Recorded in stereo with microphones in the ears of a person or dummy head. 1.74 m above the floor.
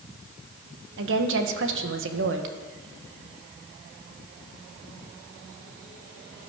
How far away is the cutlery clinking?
No cutlery clinking in this recording.